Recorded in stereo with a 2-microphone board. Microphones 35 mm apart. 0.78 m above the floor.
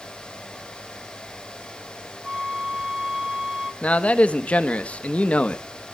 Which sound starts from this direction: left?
A man speaking, at 3.8 s.